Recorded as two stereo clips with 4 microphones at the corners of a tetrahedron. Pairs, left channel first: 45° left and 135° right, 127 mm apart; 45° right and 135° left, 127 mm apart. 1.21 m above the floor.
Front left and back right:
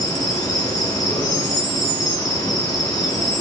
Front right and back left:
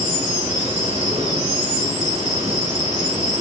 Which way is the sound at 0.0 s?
105° left.